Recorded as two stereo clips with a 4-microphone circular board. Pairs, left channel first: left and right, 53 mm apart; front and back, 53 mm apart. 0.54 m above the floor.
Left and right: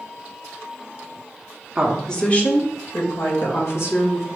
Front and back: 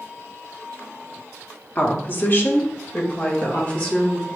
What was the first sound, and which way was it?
A woman speaking, 25° right.